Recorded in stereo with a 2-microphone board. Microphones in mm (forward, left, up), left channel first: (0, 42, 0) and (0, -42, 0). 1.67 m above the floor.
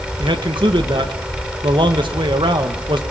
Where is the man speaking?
80° right, 1.9 m.